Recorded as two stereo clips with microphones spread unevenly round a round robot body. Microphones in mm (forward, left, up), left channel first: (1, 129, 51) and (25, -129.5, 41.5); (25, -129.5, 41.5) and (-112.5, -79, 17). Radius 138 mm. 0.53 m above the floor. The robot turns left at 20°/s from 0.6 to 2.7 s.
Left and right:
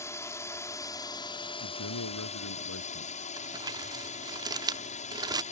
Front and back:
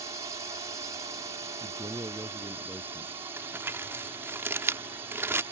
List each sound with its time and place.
0.0 s a drone: 165° left; by 5.5 s 125° left
1.6 s a man speaking: 90° left; by 3.3 s 70° left
3.4 s crumpling: 150° right